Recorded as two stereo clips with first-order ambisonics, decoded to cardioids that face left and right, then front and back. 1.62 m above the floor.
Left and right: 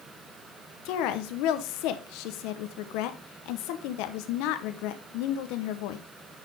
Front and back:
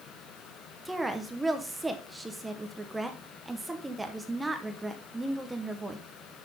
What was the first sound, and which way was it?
A woman speaking, 100° left.